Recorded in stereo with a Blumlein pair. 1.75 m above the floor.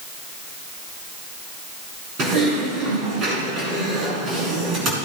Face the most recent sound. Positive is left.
turn(degrees=-30)